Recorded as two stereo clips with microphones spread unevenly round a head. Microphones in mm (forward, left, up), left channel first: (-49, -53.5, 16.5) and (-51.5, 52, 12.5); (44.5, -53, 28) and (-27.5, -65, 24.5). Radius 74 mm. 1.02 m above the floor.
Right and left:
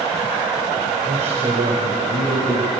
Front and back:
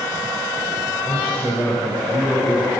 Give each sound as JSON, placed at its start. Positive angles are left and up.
{"t": 1.1, "sound": "a man speaking", "azimuth_deg": 105, "distance_m": 4.0}